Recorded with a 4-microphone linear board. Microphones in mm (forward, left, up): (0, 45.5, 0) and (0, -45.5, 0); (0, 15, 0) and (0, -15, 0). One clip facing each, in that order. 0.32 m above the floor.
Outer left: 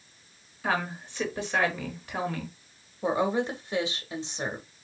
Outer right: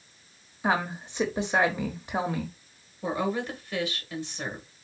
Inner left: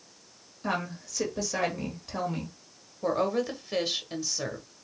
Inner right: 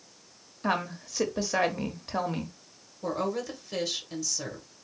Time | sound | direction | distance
0.6 | a woman speaking | 20° right (ahead or behind) | 1.1 m
3.0 | a woman speaking | 25° left (ahead or behind) | 1.1 m